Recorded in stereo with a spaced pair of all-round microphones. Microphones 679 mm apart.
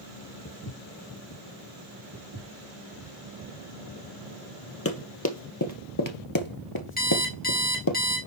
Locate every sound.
0.5 s footsteps: 25° left (ahead or behind), 1.3 m
2.1 s footsteps: 25° right (ahead or behind), 5.5 m
4.8 s running footsteps: 20° left (ahead or behind), 1.7 m; by 8.0 s 30° left (ahead or behind), 1.4 m
7.0 s an alarm clock: 15° left (ahead or behind), 4 m